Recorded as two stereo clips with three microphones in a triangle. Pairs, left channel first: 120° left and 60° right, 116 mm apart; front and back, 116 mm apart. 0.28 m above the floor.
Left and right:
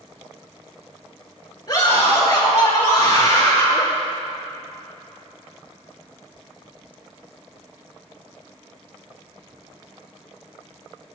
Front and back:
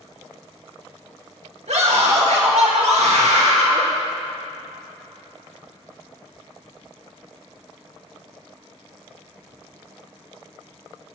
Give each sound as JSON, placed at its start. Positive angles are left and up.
{"t": 1.7, "sound": "a scream", "azimuth_deg": 175, "distance_m": 3.5}